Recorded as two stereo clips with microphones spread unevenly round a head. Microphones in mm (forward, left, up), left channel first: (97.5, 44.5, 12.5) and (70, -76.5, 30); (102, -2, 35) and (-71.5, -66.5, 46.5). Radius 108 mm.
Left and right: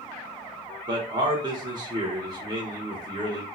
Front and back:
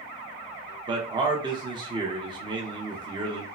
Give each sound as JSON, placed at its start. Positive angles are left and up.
{"t": 0.9, "sound": "a man speaking", "azimuth_deg": -120, "distance_m": 0.6}